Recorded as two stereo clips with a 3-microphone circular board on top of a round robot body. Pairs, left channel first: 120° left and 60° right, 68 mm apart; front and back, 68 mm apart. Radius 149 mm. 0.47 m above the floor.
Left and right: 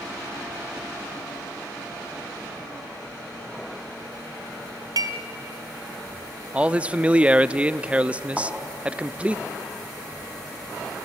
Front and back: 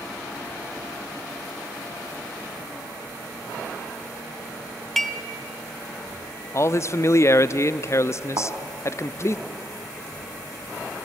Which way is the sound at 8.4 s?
150° right.